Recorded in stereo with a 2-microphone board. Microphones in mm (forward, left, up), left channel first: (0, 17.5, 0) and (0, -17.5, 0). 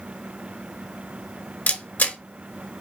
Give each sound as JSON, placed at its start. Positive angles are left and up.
{"t": 1.7, "sound": "a camera shutter", "side_deg": 55, "distance_m": 0.8}